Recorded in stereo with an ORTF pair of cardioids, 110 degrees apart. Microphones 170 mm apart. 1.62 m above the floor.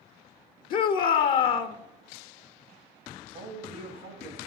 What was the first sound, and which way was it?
A shout, 60° left.